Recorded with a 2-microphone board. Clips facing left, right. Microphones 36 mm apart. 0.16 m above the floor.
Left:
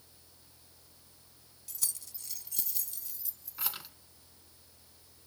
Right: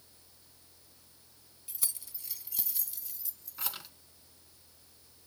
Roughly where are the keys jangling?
Right.